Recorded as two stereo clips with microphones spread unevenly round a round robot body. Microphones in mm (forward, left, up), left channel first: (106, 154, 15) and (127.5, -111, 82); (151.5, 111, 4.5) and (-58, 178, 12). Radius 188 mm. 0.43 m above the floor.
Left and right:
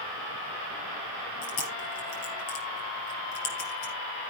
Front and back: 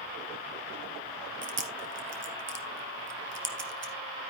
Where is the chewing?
130° left, 3 m.